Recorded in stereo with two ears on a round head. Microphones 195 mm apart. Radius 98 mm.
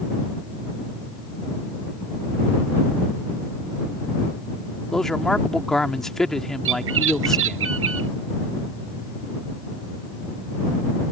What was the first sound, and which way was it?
A man speaking, centre (ahead or behind).